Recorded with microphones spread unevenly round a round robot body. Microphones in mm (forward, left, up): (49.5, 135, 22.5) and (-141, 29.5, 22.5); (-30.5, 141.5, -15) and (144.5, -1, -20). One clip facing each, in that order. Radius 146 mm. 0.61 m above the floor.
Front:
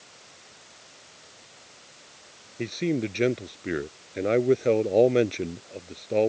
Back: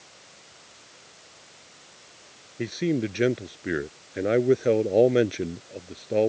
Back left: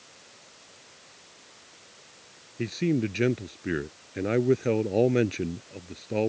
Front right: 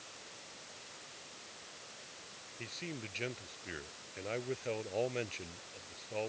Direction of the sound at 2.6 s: 125° left.